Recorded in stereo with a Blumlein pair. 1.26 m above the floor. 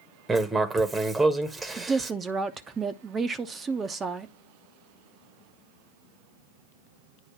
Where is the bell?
I don't hear a bell.